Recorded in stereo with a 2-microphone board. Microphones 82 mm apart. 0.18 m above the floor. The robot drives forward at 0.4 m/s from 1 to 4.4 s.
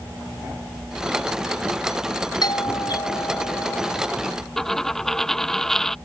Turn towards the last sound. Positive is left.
turn(degrees=5)  # may be behind; listen again after turning